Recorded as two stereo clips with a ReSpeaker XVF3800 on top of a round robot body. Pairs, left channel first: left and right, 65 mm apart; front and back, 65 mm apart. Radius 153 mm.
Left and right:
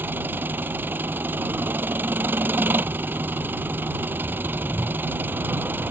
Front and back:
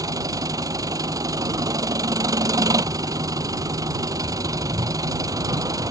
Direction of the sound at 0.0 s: 150° right.